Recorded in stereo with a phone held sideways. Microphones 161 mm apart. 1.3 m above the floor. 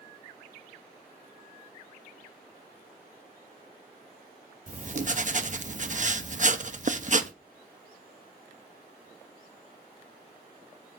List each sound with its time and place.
4.7 s writing: 50° right (ahead or behind), 0.7 m